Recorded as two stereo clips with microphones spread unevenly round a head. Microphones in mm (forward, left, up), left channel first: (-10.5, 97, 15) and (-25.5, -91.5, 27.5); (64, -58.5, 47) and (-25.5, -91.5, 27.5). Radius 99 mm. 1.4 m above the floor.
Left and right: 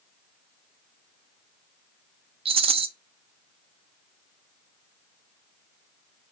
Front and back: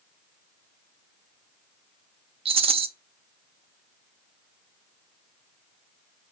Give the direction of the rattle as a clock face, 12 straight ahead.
5 o'clock.